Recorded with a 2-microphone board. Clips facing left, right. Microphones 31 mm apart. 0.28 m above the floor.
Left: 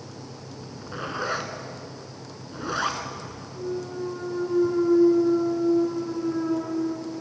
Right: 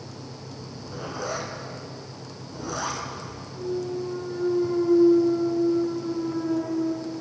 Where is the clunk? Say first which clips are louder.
Right 2 dB; 45° left (ahead or behind), 3.5 m.